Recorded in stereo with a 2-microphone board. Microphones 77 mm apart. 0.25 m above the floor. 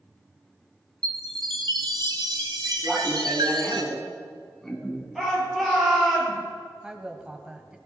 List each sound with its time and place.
1.0 s a chime: 65° right (ahead or behind), 1.7 m
2.8 s laughter: 5° left (ahead or behind), 2.5 m
5.2 s a shout: 5° right (ahead or behind), 6.5 m
6.8 s a woman speaking: 10° right (ahead or behind), 1.2 m